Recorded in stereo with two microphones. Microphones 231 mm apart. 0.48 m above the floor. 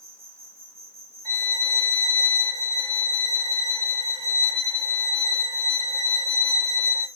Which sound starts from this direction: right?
An insect, at 0.0 s.